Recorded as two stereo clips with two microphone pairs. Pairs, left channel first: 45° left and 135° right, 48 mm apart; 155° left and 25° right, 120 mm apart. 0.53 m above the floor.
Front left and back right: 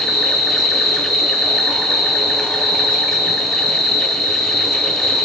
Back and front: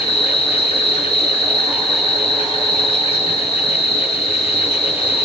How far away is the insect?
About 4 m.